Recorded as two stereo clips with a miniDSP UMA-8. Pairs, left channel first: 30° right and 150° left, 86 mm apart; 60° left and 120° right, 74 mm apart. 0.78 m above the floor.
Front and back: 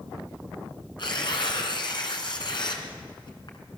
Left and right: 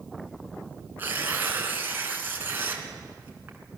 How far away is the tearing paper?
About 3 m.